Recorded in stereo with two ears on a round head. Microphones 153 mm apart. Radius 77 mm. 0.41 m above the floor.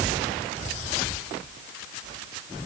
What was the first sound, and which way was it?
Only background noise.